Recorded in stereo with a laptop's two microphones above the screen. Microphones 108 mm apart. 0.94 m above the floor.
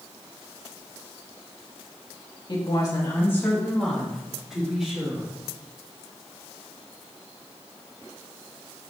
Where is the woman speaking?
45° left (ahead or behind), 1.9 m; by 5.3 s 10° right (ahead or behind), 4 m.